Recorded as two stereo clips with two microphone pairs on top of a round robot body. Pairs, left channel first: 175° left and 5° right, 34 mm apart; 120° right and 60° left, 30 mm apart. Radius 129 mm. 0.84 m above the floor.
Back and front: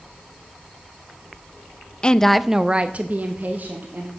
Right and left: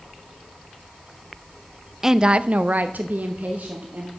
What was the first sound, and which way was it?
A woman speaking, 140° left.